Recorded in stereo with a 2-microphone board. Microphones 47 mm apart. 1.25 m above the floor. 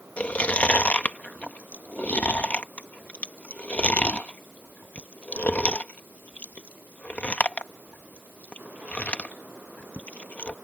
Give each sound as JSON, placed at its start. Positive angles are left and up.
{"t": 0.2, "sound": "chewing", "side_deg": 35}